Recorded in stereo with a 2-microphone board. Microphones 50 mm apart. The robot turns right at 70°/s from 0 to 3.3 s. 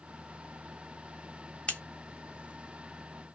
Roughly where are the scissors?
Left.